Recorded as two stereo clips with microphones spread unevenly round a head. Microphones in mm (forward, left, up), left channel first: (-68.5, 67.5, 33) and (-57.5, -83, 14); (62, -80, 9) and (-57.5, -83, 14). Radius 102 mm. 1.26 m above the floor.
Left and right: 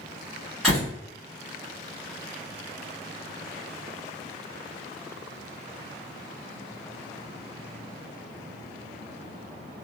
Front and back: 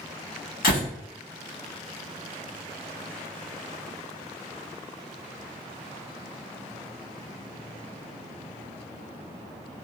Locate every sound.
0.6 s a door slam: 5° left, 1.6 m